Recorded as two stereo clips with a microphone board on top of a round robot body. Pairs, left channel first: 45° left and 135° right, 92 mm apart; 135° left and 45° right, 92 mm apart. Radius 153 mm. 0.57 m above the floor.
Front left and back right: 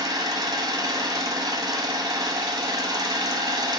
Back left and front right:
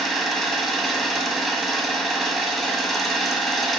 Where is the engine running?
140° right, 1.1 m.